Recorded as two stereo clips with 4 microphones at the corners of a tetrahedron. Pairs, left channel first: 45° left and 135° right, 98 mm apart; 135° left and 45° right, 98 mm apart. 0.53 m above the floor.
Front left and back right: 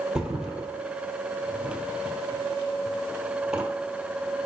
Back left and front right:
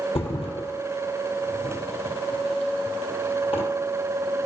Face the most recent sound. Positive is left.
turn(degrees=145)